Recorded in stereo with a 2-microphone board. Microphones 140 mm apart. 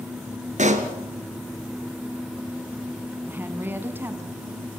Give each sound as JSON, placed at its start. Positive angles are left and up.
{"t": 0.6, "sound": "a pop", "side_deg": -60, "distance_m": 2.0}
{"t": 3.3, "sound": "a woman speaking", "side_deg": -15, "distance_m": 1.6}